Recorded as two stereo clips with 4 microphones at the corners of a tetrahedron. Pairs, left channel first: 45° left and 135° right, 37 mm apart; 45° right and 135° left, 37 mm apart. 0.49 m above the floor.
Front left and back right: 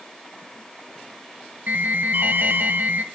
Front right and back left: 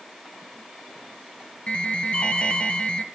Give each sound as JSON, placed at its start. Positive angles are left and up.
{"t": 1.7, "sound": "an alarm", "azimuth_deg": -100, "distance_m": 1.8}